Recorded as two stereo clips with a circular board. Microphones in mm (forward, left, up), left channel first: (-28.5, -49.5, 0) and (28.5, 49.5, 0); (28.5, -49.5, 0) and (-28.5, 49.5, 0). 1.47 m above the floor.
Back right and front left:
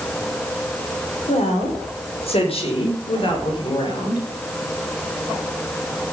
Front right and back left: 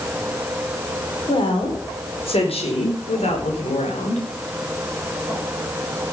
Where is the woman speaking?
105° right, 5 m; by 4.2 s 70° right, 5.5 m.